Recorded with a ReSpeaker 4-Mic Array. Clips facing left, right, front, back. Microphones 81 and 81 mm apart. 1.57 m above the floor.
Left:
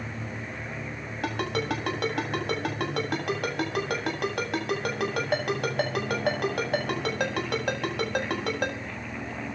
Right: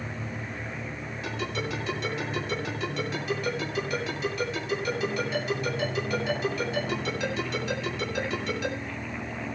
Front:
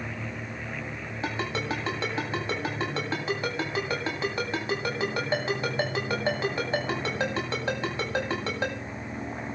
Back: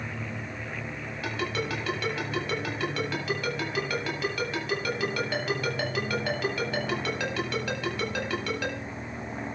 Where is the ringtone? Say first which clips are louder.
Left 4 dB, front 1 dB; 60° left, 9 m.